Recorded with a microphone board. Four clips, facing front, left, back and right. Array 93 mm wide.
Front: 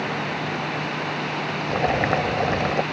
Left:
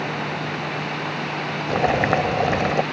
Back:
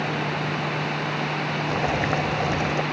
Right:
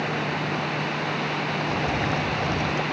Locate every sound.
1.7 s boiling: 70° left